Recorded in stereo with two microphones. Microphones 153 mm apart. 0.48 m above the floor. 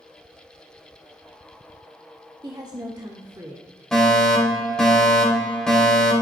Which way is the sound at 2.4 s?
25° right (ahead or behind).